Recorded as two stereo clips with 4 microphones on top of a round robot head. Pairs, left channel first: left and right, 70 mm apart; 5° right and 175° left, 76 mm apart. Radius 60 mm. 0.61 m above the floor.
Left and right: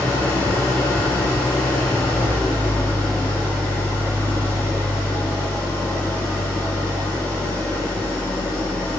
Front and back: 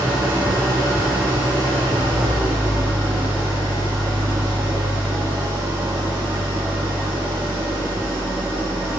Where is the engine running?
155° left, 5.5 m.